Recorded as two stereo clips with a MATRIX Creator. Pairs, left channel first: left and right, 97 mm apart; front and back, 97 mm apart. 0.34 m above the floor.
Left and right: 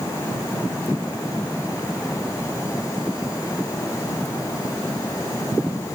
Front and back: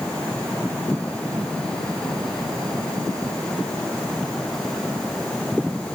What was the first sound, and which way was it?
Only background noise.